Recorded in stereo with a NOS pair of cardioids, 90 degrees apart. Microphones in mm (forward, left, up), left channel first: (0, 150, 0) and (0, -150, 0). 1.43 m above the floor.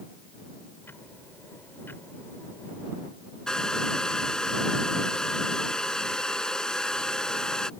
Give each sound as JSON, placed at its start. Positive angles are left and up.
{"t": 0.8, "sound": "ticking", "azimuth_deg": 5}
{"t": 3.5, "sound": "a hair dryer", "azimuth_deg": 0}